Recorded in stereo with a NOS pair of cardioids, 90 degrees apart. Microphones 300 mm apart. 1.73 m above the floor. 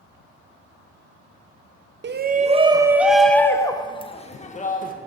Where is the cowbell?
No cowbell in this recording.